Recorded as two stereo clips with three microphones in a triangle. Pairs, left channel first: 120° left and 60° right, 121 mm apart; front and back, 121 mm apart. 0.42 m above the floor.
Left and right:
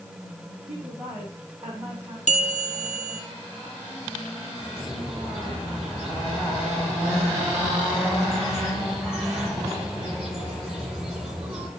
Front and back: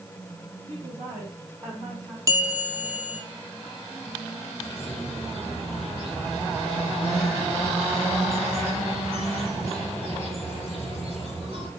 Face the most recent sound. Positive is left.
turn(degrees=-145)